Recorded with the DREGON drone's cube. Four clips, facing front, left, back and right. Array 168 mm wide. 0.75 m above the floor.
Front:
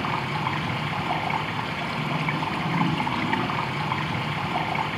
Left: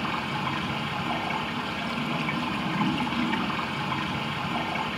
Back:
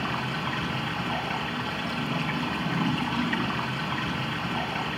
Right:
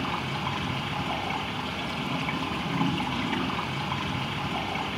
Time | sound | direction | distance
0.0 | running water | straight ahead | 5 m